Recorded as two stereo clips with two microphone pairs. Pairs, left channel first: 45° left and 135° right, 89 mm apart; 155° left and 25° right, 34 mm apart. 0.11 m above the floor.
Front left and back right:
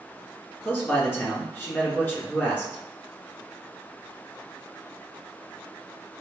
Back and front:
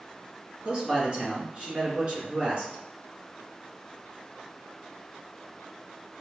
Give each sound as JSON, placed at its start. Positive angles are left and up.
{"t": 0.7, "sound": "a man speaking", "azimuth_deg": 0, "distance_m": 1.5}